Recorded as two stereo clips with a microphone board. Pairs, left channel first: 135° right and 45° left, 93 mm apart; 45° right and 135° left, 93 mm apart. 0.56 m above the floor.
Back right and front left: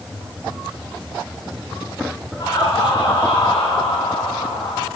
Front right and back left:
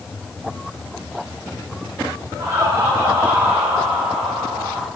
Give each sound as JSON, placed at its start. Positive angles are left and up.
{"t": 2.4, "sound": "laughter", "azimuth_deg": -160, "distance_m": 6.5}